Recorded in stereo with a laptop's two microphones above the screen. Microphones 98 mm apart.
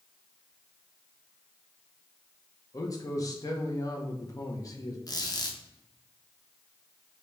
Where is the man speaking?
35° left (ahead or behind), 0.6 m.